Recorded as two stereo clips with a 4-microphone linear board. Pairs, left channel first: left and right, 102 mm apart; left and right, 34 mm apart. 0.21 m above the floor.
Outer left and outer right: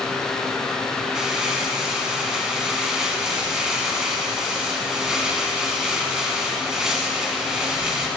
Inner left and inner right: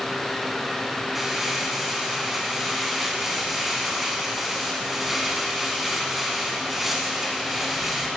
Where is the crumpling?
5° right (ahead or behind), 1.7 m.